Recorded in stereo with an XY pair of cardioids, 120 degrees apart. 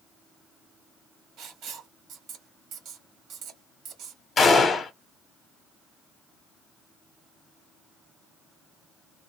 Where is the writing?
65° right, 1.3 m.